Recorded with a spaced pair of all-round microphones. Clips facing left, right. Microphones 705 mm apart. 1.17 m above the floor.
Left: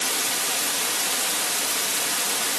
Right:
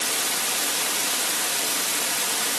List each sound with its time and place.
Only background noise.